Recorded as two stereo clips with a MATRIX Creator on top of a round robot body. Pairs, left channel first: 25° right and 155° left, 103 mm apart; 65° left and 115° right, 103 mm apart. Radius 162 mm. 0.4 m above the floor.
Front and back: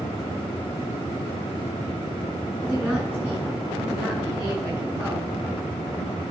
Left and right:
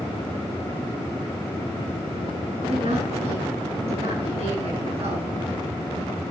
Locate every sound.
2.6 s a woman speaking: 130° right, 8 m